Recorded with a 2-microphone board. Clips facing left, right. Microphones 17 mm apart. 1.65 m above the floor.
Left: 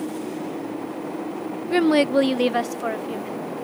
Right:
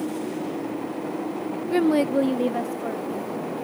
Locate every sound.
1.7 s a woman speaking: 25° left (ahead or behind); by 3.4 s 85° left